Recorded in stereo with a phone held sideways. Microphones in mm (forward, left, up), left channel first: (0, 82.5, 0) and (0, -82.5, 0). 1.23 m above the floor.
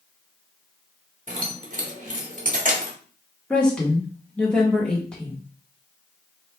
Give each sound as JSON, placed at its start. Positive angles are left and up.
{"t": 1.3, "sound": "keys jangling", "side_deg": -50, "distance_m": 1.3}
{"t": 3.5, "sound": "a woman speaking", "side_deg": 5, "distance_m": 1.7}